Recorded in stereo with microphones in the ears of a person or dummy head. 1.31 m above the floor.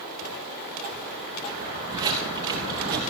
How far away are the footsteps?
About 5.5 m.